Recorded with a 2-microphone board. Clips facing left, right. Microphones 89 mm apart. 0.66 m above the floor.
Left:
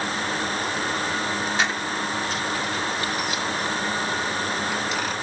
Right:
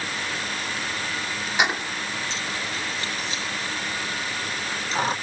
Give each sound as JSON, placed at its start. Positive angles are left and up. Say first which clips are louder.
{"t": 1.6, "sound": "keys jangling", "louder": "even", "side_deg": -15}